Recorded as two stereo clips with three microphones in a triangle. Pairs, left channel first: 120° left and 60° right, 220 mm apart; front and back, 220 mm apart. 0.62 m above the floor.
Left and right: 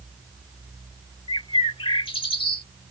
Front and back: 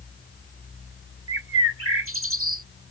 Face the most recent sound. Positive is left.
turn(degrees=-175)